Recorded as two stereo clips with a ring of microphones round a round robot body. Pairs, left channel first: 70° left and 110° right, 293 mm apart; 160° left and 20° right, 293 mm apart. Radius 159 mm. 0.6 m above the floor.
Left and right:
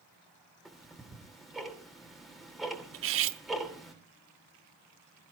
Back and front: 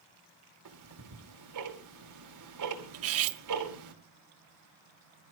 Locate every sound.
0.7 s ticking: 25° right, 2.5 m
2.9 s cutlery clinking: 65° right, 0.8 m